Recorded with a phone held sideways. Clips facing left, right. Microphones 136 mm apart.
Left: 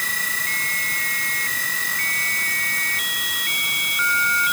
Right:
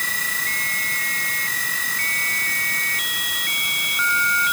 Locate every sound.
Only background noise.